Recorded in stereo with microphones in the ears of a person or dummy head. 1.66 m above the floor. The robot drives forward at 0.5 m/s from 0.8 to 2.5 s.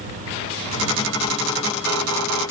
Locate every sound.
Only background noise.